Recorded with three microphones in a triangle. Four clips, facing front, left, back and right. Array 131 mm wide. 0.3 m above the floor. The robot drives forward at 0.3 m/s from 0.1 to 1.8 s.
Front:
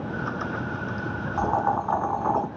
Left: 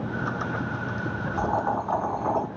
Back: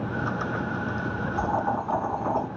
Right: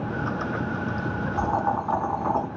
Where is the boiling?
35° right, 1.6 m; by 2.5 s 45° right, 1.6 m.